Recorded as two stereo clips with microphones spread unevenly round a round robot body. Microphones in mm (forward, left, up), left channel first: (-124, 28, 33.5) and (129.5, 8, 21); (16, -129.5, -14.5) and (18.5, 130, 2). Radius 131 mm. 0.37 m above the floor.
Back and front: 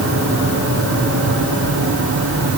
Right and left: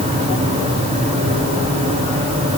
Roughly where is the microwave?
I don't hear a microwave.